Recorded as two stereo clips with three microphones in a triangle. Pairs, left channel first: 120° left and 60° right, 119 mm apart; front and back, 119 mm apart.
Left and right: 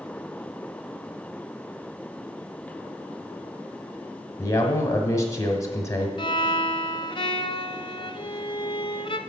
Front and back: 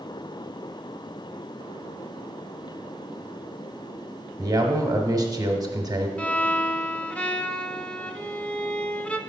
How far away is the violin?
About 0.5 m.